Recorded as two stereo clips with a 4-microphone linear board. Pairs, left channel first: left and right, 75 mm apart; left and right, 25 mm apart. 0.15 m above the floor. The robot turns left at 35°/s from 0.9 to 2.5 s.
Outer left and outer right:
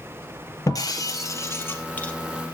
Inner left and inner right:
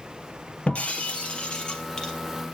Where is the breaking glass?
60° left, 2.5 m; by 2.1 s 20° left, 2.5 m.